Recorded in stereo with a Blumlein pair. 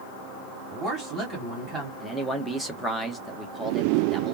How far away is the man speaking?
About 1.2 m.